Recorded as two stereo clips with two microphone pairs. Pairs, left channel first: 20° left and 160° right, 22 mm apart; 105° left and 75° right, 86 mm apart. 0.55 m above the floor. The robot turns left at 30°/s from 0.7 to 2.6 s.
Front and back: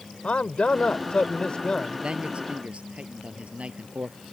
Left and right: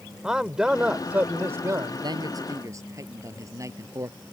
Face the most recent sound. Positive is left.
turn(degrees=-130)